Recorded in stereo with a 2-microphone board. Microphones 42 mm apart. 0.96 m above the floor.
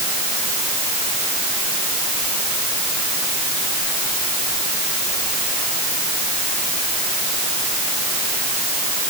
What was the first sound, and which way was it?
Only background noise.